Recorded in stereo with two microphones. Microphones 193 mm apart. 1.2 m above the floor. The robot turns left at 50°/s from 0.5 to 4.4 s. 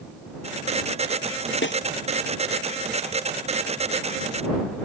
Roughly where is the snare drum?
Left.